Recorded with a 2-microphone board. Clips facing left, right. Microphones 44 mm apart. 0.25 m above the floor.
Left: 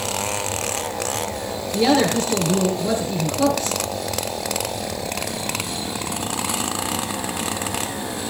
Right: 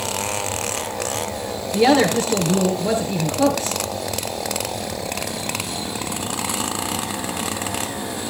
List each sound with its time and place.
1.7 s a woman speaking: 15° right (ahead or behind), 4.5 m